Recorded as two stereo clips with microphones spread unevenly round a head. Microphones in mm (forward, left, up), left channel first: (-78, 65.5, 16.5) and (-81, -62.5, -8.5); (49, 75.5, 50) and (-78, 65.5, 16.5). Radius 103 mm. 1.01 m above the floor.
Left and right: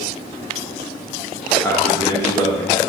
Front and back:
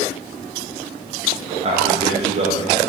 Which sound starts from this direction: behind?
A man speaking, at 1.6 s.